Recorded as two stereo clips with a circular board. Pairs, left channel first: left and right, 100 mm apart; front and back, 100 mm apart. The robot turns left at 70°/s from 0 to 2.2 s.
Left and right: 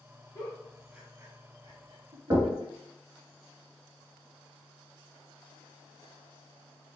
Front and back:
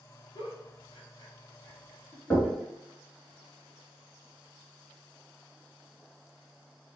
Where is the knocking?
75° right, 0.8 m.